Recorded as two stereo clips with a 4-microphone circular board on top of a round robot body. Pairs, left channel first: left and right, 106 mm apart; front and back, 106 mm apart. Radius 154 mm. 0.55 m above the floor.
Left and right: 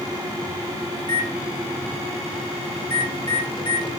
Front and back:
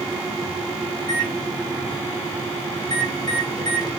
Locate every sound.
1.0 s a microwave: 50° left, 3 m